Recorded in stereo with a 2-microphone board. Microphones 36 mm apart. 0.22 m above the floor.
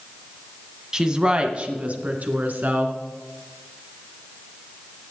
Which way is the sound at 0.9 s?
20° right (ahead or behind).